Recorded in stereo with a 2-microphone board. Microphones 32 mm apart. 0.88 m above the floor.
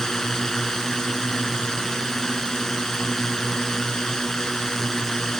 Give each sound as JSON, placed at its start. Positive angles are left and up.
{"t": 0.0, "sound": "a drone", "side_deg": 10}